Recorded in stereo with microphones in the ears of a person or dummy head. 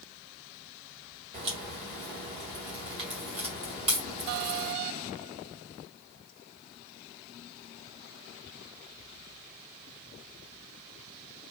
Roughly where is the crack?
Right.